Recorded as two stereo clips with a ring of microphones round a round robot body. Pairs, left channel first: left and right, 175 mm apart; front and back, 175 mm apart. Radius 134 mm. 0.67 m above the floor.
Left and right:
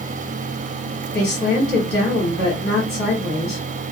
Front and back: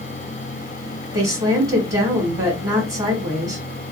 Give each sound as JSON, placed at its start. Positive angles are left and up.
{"t": 1.1, "sound": "a woman speaking", "azimuth_deg": 110, "distance_m": 1.7}